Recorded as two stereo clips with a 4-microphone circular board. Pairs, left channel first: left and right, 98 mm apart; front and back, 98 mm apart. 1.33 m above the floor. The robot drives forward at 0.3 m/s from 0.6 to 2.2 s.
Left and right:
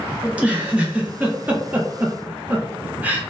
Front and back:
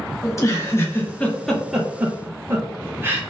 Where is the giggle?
25° right, 0.6 m; by 3.2 s 145° right, 0.5 m.